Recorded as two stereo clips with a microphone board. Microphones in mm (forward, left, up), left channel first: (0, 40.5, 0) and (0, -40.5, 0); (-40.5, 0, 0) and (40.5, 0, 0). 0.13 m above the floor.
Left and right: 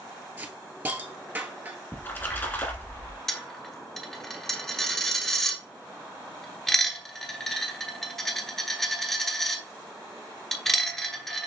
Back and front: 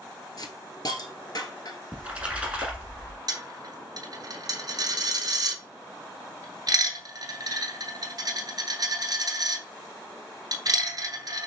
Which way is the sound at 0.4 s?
155° right.